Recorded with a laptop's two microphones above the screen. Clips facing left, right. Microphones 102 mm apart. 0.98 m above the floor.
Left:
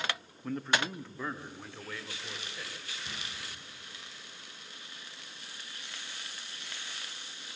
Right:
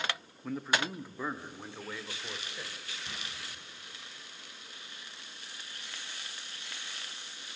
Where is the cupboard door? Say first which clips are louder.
Even; 5° left (ahead or behind), 8 m.